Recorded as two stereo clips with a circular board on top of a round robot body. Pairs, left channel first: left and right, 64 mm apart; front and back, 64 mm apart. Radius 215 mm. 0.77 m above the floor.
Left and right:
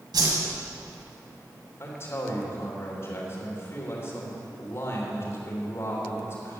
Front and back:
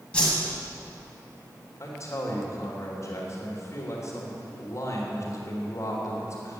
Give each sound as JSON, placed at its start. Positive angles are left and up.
{"t": 0.1, "sound": "a whoosh", "azimuth_deg": -75, "distance_m": 2.0}
{"t": 1.8, "sound": "a man speaking", "azimuth_deg": 45, "distance_m": 3.0}